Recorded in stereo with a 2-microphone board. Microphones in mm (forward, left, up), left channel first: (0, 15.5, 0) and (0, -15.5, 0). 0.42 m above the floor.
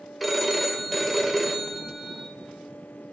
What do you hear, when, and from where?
0.2 s a phone ringing: 5° left (ahead or behind), 0.6 m